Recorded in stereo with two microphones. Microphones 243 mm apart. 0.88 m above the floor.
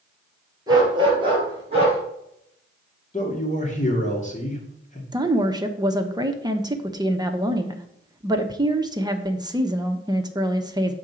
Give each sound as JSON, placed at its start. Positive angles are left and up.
{"t": 0.7, "sound": "a dog barking", "side_deg": -15, "distance_m": 3.5}
{"t": 3.1, "sound": "a man speaking", "side_deg": 30, "distance_m": 2.0}
{"t": 5.1, "sound": "a woman speaking", "side_deg": -15, "distance_m": 0.8}